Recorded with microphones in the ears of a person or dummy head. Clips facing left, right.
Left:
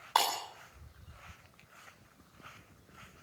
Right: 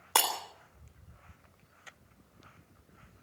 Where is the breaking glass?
35° right (ahead or behind), 3.5 m.